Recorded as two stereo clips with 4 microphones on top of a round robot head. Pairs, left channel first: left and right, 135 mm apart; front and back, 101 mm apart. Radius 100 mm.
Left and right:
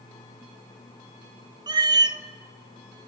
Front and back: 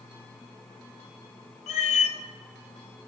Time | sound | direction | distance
1.7 | a cat meowing | 30° right | 0.7 m